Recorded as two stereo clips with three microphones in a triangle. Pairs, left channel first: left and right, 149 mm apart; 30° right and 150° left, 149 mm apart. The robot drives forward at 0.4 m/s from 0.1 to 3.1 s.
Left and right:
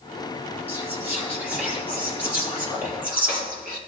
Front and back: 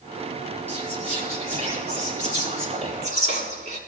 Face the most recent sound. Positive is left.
turn(degrees=-170)